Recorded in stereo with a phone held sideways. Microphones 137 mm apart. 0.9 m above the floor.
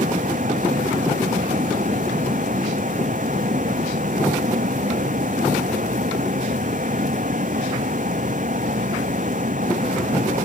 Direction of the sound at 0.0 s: 70° right (ahead or behind).